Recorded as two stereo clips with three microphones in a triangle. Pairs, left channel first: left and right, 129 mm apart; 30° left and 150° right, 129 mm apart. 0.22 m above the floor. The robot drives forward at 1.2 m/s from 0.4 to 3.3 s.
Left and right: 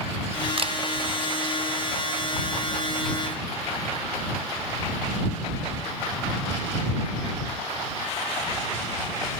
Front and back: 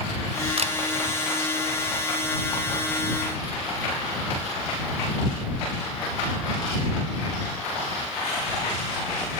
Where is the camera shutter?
120° right, 1.1 m; by 0.7 s 130° right, 1.2 m.